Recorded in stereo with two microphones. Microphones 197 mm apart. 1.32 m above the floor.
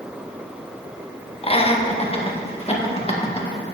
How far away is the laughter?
About 1.0 m.